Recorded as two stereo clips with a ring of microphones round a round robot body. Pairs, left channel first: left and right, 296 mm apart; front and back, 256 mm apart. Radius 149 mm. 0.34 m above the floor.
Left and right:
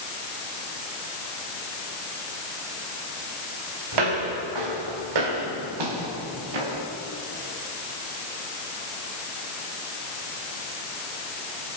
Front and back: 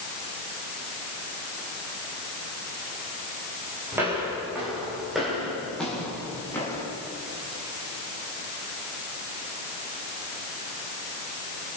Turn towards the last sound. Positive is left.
turn(degrees=-80)